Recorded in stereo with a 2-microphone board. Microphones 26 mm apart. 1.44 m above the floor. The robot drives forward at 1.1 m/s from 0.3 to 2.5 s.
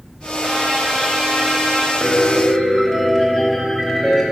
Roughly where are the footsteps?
No footsteps in this recording.